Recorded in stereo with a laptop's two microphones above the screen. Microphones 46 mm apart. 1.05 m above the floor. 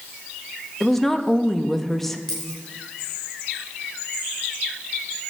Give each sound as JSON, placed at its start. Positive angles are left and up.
{"t": 0.8, "sound": "a woman speaking", "side_deg": 5, "distance_m": 1.2}
{"t": 2.3, "sound": "a dropped coin", "side_deg": 15, "distance_m": 5.0}